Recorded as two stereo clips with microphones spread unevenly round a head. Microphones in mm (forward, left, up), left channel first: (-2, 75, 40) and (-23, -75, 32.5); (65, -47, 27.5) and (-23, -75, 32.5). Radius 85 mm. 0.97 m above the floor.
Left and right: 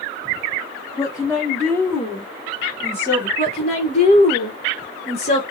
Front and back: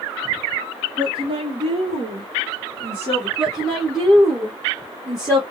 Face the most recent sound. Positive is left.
turn(degrees=110)